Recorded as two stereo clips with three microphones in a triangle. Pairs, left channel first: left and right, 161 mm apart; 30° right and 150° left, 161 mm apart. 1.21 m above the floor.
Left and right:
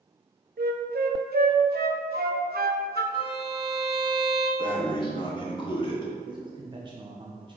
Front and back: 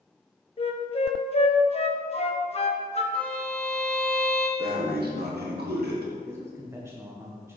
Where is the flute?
80° right, 1.0 m.